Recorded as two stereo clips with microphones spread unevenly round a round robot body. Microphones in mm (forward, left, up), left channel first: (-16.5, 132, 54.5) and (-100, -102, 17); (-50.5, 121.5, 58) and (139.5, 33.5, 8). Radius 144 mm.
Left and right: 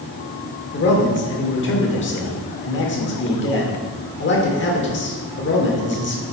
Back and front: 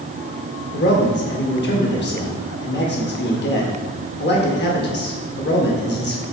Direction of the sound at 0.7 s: 115° left.